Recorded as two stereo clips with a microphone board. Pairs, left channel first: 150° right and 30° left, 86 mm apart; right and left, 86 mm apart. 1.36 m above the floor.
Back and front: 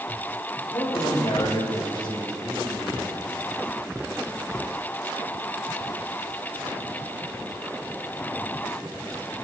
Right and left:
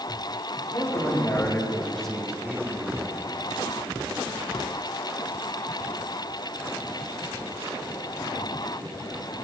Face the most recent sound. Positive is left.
turn(degrees=125)